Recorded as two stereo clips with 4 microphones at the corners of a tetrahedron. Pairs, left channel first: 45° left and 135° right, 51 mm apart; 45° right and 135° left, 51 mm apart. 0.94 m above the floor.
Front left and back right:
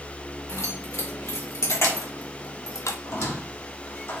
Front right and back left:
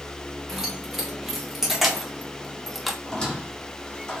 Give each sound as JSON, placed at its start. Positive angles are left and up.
{"t": 0.5, "sound": "keys jangling", "azimuth_deg": 50, "distance_m": 2.0}
{"t": 3.0, "sound": "a squeak", "azimuth_deg": 25, "distance_m": 1.6}